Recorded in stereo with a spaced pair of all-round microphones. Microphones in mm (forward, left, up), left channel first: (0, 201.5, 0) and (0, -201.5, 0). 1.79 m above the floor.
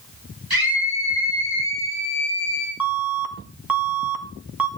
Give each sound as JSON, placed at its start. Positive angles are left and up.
{"t": 0.5, "sound": "a scream", "side_deg": -60, "distance_m": 7.0}
{"t": 2.8, "sound": "an alarm", "side_deg": -55, "distance_m": 1.7}